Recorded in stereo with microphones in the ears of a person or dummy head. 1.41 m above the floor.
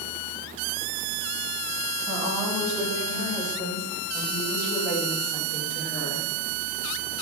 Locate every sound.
2.1 s a woman speaking: 15° right (ahead or behind), 4 m; by 6.3 s 50° left (ahead or behind), 3 m